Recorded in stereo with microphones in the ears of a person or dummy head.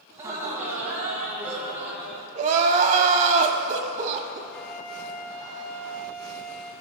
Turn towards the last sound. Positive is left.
turn(degrees=55)  # may be behind; listen again after turning